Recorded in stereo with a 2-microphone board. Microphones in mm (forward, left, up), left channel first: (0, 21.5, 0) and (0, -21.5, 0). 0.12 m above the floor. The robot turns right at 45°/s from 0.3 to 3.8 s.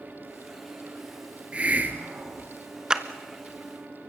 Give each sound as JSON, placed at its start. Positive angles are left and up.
{"t": 1.5, "sound": "a hiss", "azimuth_deg": -140, "distance_m": 1.6}
{"t": 2.9, "sound": "a clap", "side_deg": -20, "distance_m": 0.9}